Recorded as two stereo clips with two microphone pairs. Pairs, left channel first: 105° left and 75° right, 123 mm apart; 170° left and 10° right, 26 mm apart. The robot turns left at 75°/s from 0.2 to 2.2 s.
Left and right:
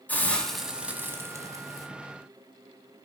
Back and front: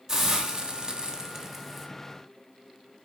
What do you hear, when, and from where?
0.1 s a hiss: 40° left, 1.2 m; by 1.9 s 85° right, 1.2 m